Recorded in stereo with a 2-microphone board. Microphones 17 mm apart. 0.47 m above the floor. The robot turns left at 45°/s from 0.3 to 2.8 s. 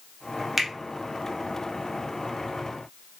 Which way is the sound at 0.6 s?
5° right (ahead or behind).